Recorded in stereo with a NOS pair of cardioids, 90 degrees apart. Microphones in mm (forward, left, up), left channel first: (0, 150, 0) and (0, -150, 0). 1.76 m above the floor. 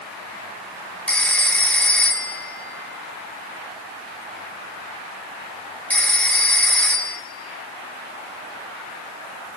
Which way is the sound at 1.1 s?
5° left.